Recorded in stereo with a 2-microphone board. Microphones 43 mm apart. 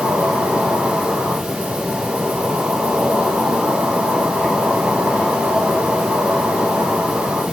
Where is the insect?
30° right (ahead or behind), 6.5 m.